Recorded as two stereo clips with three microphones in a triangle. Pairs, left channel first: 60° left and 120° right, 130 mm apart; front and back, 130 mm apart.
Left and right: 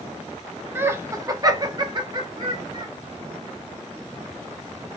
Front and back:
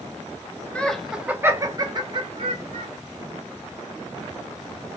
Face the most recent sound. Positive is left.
turn(degrees=-165)